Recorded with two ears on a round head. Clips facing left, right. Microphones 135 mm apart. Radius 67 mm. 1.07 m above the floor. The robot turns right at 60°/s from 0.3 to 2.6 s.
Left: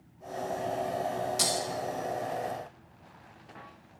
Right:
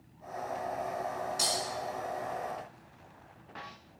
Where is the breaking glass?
70° left (ahead or behind), 3 m; by 1.6 s 75° left (ahead or behind), 3 m.